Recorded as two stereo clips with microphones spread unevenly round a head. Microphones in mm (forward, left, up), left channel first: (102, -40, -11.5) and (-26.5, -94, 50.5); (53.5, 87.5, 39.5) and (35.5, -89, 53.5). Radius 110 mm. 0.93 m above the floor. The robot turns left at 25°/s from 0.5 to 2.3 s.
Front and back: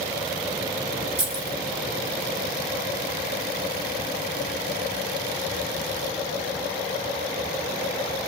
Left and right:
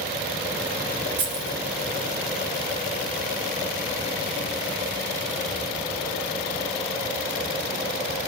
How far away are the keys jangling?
About 4.5 m.